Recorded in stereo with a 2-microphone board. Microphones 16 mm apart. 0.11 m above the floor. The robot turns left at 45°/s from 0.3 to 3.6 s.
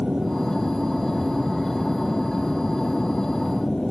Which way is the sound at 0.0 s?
100° right.